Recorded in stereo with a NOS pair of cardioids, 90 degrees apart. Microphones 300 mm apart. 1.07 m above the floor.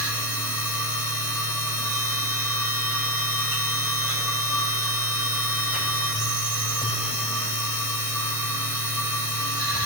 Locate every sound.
0.0 s a machine running: straight ahead, 3.5 m